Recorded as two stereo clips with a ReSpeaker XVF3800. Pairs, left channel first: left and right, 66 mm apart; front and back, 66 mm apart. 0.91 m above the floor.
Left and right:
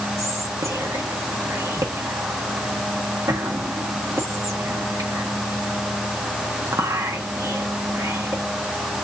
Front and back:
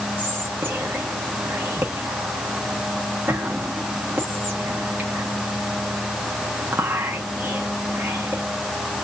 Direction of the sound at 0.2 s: 120° right.